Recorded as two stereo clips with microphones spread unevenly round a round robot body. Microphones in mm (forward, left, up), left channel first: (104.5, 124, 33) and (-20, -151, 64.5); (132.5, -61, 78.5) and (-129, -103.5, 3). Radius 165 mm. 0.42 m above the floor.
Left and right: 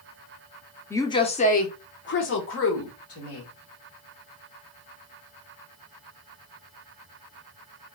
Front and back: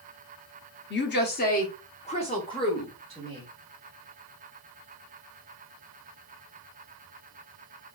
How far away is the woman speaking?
About 0.9 m.